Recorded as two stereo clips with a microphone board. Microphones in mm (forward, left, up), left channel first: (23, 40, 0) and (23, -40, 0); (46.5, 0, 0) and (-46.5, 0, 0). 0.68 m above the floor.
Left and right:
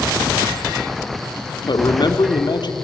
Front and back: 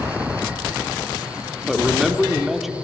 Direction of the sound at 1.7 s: 95° left.